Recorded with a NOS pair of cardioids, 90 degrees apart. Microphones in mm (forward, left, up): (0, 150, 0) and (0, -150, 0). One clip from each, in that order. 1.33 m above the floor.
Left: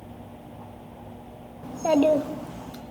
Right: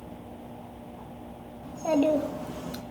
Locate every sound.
1.6 s a child speaking: 40° left, 1.6 m; by 2.8 s 35° right, 1.1 m